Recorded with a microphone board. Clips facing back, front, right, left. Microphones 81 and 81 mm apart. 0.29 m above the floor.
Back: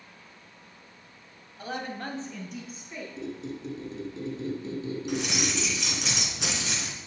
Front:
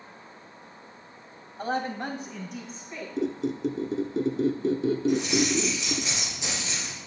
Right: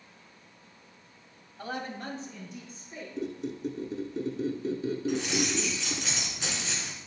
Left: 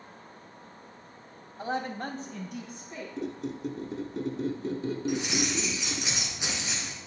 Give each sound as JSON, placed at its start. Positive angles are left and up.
{"t": 1.6, "sound": "a woman speaking", "azimuth_deg": 25, "distance_m": 1.4}
{"t": 3.2, "sound": "a squeak", "azimuth_deg": 0, "distance_m": 0.8}
{"t": 5.1, "sound": "keys jangling", "azimuth_deg": 165, "distance_m": 2.5}